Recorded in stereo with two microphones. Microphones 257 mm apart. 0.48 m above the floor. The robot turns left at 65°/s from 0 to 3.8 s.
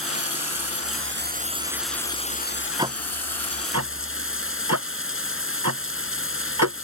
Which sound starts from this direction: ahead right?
Running water, at 0.0 s.